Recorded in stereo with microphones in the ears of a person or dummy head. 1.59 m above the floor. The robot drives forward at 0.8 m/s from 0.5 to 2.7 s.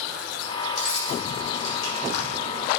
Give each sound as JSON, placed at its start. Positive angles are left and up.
{"t": 0.8, "sound": "keys jangling", "side_deg": 75, "distance_m": 5.0}